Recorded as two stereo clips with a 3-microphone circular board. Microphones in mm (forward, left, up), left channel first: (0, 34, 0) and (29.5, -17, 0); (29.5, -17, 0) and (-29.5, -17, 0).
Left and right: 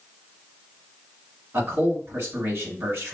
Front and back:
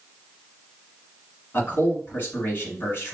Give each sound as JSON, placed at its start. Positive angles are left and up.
{"t": 1.5, "sound": "a man speaking", "azimuth_deg": -40, "distance_m": 1.9}